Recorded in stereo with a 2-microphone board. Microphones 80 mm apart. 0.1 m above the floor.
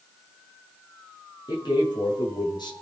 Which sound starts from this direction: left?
A man speaking, at 1.5 s.